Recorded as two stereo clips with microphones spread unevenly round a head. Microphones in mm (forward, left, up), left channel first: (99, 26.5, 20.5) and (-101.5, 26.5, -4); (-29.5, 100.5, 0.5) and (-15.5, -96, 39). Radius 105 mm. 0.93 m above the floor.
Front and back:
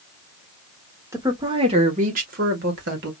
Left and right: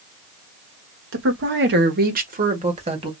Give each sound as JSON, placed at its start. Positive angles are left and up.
{"t": 1.1, "sound": "a woman speaking", "azimuth_deg": -105, "distance_m": 1.4}